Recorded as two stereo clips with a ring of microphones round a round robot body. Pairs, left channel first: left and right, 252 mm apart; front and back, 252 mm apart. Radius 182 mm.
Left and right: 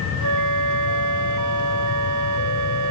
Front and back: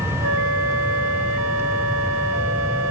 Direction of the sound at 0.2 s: 125° right.